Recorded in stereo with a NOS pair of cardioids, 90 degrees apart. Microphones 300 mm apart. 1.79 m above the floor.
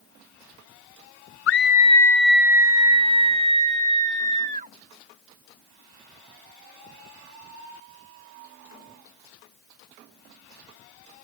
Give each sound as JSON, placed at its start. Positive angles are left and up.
{"t": 1.5, "sound": "a scream", "azimuth_deg": 50}